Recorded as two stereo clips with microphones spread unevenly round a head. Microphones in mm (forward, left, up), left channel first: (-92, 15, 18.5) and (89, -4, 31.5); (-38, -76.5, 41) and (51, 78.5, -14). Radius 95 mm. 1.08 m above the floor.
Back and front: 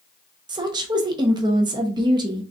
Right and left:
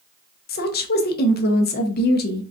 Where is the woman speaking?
75° right, 0.8 m.